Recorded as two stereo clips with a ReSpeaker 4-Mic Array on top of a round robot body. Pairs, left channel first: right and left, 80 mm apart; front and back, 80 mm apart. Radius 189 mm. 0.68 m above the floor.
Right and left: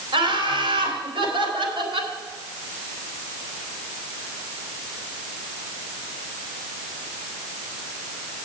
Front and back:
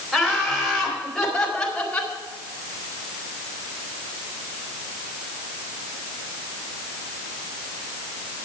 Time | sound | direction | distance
0.1 | laughter | 95° left | 4.5 m